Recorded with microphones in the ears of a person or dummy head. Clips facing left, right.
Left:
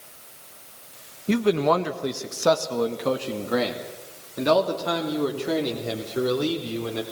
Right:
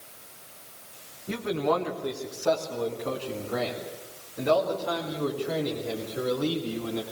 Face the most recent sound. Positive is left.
turn(degrees=85)